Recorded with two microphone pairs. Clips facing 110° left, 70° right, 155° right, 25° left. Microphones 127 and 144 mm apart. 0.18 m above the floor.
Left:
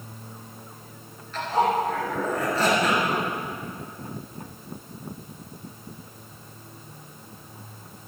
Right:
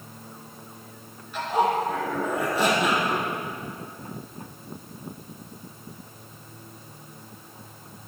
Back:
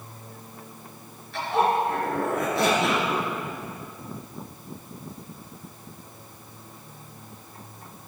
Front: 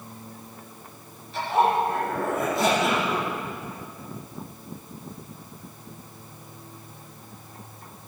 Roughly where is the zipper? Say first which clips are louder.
Even, front 1 dB; behind right.